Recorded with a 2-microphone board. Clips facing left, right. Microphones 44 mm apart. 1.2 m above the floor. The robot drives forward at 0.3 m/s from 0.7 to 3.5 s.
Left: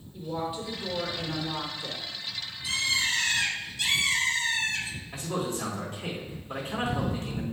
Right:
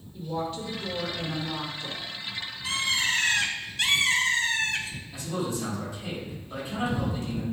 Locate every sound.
0.1 s a woman speaking: 10° left (ahead or behind), 1.1 m; by 2.1 s 20° left (ahead or behind), 0.7 m
2.6 s a bird: 45° right (ahead or behind), 1.4 m; by 5.0 s 55° right (ahead or behind), 1.3 m
5.1 s a man speaking: 55° left (ahead or behind), 2.5 m